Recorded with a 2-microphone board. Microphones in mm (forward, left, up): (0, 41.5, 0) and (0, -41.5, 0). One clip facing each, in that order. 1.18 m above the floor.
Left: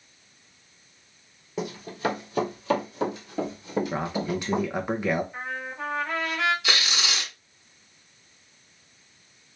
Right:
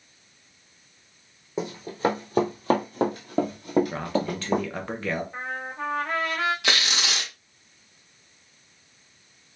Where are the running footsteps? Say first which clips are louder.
Right 3 dB; 30° right (ahead or behind), 1.8 m; by 4.7 s 55° right (ahead or behind), 2 m.